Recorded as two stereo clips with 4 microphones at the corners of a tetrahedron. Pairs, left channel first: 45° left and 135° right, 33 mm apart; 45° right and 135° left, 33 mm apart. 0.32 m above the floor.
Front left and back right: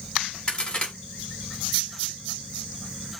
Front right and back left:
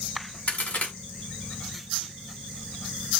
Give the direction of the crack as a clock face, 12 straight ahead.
12 o'clock.